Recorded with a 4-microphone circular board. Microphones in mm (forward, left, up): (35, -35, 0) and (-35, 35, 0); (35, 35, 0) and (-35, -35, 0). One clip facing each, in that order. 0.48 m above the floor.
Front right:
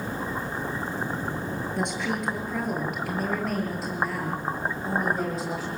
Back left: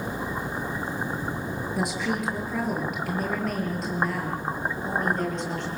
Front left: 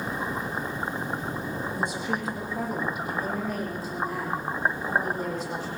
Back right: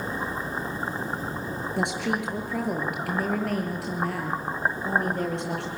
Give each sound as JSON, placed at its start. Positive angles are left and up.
{"t": 1.8, "sound": "a woman speaking", "azimuth_deg": -140, "distance_m": 7.0}